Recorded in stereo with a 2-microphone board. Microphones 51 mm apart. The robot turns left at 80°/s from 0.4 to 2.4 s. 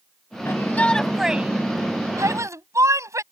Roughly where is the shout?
Ahead left.